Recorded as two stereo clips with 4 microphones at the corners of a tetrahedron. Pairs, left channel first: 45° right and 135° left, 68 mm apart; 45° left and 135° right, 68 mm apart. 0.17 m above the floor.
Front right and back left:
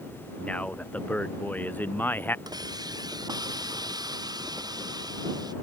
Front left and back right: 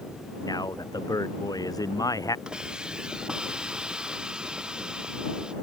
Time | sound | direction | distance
0.4 | a man speaking | 25° left | ?
2.5 | a hiss | 145° left | ?